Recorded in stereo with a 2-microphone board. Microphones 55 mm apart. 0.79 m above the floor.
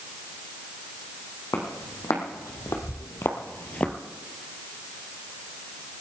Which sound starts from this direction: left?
Footsteps, at 1.5 s.